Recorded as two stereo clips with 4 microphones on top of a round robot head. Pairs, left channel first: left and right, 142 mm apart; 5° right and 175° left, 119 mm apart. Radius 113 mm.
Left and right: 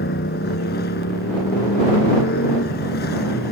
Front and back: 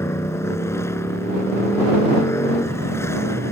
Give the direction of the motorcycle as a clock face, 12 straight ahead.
10 o'clock.